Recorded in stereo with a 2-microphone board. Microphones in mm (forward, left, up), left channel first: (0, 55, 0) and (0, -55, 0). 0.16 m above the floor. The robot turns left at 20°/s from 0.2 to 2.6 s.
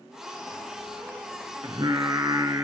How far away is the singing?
About 0.8 m.